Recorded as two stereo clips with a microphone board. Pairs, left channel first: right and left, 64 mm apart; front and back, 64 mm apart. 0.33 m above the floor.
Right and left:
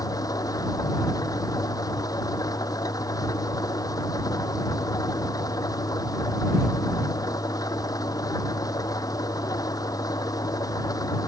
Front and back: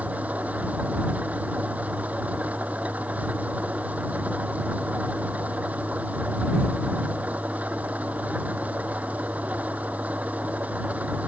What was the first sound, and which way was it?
An engine running, 110° right.